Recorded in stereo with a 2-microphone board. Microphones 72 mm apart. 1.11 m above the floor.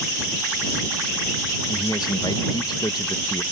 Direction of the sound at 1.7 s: 65° left (ahead or behind).